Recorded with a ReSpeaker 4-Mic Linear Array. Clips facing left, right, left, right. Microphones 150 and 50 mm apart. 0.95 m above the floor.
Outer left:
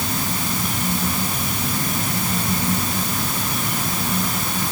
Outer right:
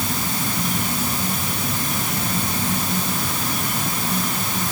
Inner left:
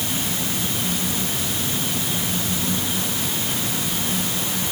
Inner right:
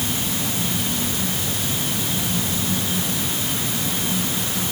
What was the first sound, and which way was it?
Only background noise.